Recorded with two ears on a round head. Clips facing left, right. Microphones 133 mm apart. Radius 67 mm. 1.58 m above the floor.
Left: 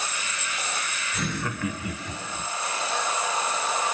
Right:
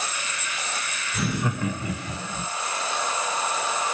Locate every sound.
1.1 s laughter: centre (ahead or behind), 0.6 m; by 2.5 s 35° right (ahead or behind), 1.1 m